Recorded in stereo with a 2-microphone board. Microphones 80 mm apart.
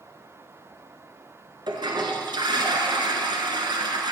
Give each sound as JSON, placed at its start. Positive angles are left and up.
{"t": 1.7, "sound": "a toilet flushing", "side_deg": -65, "distance_m": 1.5}